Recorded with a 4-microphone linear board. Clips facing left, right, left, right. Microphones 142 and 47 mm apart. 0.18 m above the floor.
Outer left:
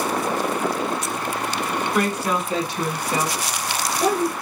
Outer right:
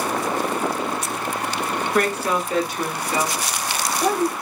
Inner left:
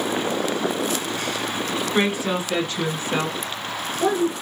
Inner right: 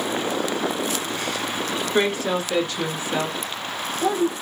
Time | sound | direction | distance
1.9 | a woman speaking | 10° left (ahead or behind) | 1.1 m